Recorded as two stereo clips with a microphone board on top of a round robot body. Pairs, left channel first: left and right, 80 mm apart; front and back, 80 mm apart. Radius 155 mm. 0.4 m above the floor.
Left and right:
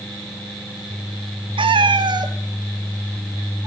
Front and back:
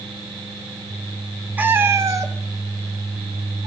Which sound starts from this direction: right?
A cat meowing, at 1.6 s.